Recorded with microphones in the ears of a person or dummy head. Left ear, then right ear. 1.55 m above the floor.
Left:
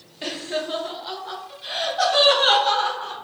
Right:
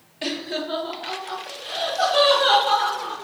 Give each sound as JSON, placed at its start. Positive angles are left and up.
{"t": 0.2, "sound": "laughter", "side_deg": -10, "distance_m": 0.6}